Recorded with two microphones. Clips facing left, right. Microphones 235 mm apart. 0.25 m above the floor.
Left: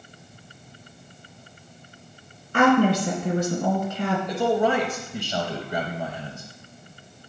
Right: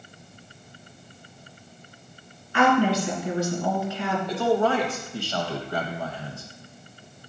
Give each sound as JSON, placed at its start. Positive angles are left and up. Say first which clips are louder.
{"t": 2.5, "sound": "a woman speaking", "louder": "left 3 dB", "side_deg": 50, "distance_m": 2.5}
{"t": 4.3, "sound": "a man speaking", "louder": "even", "side_deg": 20, "distance_m": 0.9}